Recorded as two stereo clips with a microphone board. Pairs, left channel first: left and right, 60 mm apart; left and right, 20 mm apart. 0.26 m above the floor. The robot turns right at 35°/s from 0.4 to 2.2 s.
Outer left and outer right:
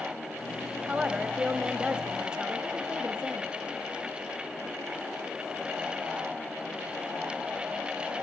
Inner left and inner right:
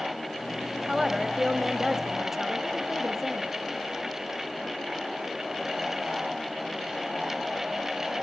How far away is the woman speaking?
About 0.9 m.